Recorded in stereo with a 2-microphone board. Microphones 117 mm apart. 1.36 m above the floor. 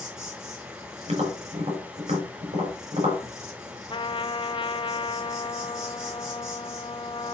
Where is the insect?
5° right (ahead or behind), 6 m.